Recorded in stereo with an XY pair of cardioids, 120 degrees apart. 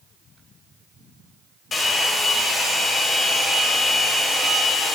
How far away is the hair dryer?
About 2.5 m.